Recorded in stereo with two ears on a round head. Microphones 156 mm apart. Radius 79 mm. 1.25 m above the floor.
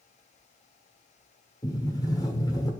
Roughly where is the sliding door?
Left.